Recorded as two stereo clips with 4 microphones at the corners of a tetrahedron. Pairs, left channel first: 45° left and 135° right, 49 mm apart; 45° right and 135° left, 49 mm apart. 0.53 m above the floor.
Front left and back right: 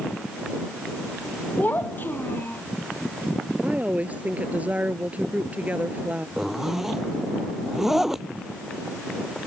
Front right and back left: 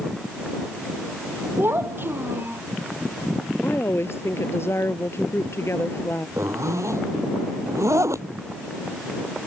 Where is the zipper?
140° left.